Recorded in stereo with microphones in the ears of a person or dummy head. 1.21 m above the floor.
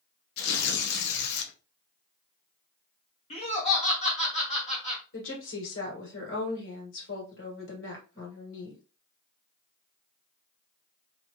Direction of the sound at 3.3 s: 30° left (ahead or behind).